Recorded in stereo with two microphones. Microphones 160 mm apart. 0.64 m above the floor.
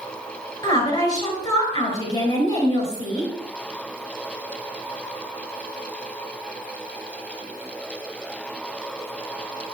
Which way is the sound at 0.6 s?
25° left (ahead or behind).